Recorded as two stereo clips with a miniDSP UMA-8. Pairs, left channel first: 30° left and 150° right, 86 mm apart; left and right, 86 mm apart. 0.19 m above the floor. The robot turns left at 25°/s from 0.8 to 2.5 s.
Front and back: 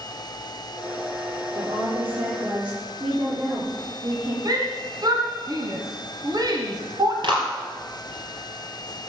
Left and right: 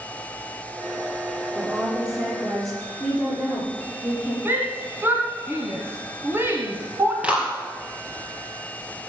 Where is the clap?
165° right, 4 m.